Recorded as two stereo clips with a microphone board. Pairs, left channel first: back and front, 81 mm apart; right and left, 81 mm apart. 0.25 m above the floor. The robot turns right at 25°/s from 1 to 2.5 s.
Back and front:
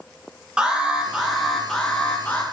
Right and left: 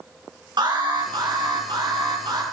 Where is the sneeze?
No sneeze in this recording.